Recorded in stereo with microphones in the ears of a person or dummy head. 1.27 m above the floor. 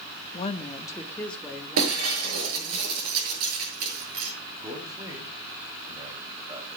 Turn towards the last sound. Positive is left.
turn(degrees=-20)  # may be behind; listen again after turning